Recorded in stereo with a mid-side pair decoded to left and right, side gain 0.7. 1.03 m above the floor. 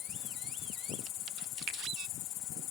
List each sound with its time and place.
0.0 s an insect: 70° left, 4.5 m
1.7 s a finger snap: 60° right, 1.6 m